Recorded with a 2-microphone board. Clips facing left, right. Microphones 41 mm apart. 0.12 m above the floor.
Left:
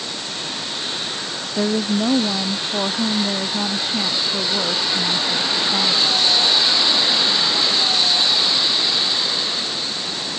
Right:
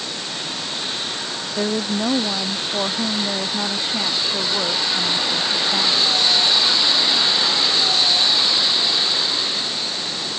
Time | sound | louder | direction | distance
1.6 | a woman speaking | left 2 dB | centre (ahead or behind) | ?